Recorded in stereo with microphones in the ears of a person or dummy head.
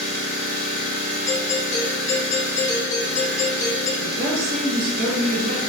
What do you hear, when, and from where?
0.0 s an engine running: 65° right (ahead or behind), 1.2 m
1.3 s a doorbell: 20° left (ahead or behind), 0.9 m
4.0 s a woman speaking: 60° right (ahead or behind), 1.0 m